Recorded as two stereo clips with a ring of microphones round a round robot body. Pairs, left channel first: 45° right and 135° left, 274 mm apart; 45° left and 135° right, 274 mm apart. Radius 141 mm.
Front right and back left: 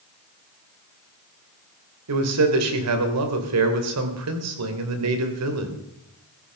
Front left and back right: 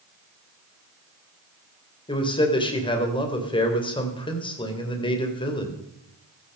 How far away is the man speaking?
About 2.5 m.